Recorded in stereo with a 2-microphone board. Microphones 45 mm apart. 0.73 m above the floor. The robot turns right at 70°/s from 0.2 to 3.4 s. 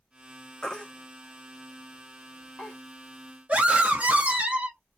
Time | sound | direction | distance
0.6 | a baby crying | 15° left (ahead or behind) | 0.8 m
3.5 | a scream | 35° right (ahead or behind) | 0.8 m